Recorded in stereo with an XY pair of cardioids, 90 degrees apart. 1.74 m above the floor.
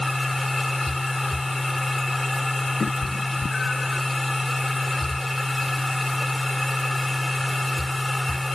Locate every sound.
0.0 s a machine running: 15° left
2.8 s a cat meowing: 40° left